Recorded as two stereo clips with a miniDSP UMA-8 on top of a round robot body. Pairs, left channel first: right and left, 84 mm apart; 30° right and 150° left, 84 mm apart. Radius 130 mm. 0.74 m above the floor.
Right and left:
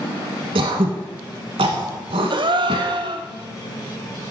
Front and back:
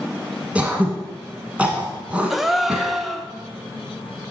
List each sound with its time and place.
0.6 s throat clearing: 75° left, 1.3 m
2.3 s a gasp: 65° left, 1.0 m